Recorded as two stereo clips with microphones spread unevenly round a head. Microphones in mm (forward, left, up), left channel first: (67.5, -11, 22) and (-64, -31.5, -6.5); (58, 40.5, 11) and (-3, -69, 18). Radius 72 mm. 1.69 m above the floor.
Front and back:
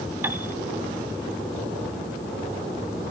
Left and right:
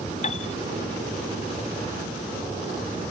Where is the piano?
110° left.